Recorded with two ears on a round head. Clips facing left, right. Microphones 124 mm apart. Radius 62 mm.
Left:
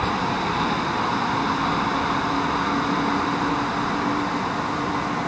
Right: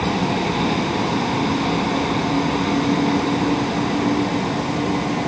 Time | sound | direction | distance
0.0 | a vehicle | 25° right (ahead or behind) | ?